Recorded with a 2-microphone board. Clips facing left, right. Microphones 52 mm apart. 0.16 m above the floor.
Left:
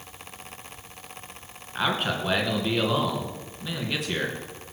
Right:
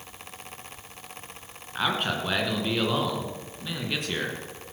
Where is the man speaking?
Centre (ahead or behind), 2 m.